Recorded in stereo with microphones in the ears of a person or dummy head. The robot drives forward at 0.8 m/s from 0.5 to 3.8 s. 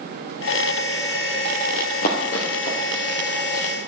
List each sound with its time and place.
1.7 s running footsteps: 45° left (ahead or behind), 3 m